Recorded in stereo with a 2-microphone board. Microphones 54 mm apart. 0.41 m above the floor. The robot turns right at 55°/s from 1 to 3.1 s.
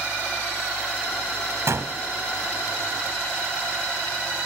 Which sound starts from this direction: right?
A gunshot, at 1.7 s.